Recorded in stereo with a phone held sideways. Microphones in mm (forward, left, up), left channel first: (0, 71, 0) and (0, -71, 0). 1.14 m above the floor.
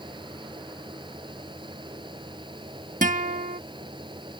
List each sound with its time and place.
0.0 s a fan: 35° right (ahead or behind)
3.0 s a guitar: 65° right (ahead or behind)